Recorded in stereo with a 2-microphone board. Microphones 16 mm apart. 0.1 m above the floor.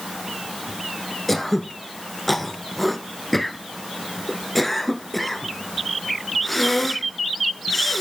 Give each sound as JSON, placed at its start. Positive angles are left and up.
{"t": 1.3, "sound": "throat clearing", "side_deg": 10, "distance_m": 1.1}